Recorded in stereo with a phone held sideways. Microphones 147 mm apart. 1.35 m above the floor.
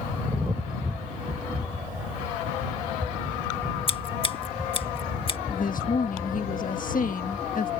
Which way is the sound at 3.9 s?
35° left (ahead or behind).